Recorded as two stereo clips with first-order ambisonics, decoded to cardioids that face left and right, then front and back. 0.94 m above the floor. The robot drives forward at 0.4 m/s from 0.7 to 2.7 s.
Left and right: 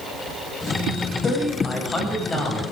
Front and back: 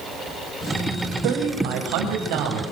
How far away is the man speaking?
About 6 m.